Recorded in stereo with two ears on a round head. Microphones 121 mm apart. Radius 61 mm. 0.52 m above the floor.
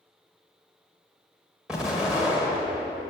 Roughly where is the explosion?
Centre.